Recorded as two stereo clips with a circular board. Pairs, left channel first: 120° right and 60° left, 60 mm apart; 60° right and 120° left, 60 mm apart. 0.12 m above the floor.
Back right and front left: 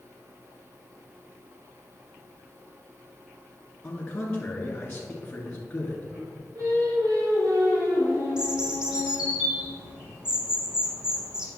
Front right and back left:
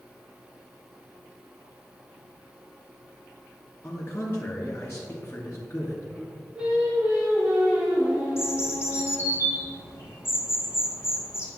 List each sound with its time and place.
3.8 s a man speaking: 65° right, 1.4 m
6.5 s singing: 45° left, 3 m
8.4 s a bird: 20° right, 1.3 m